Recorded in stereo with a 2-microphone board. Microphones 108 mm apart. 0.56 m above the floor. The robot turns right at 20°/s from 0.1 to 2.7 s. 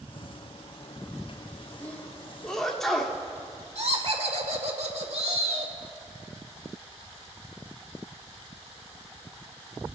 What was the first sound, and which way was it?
A sneeze, 15° left (ahead or behind).